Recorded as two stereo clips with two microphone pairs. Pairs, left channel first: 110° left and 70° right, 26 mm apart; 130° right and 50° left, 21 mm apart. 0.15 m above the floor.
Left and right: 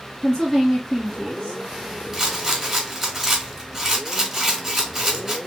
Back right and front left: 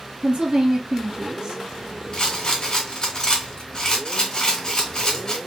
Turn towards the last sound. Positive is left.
turn(degrees=-135)